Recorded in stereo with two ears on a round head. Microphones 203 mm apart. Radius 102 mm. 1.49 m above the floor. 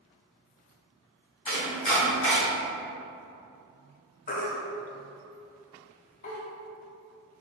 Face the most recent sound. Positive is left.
turn(degrees=35)  # may be behind; listen again after turning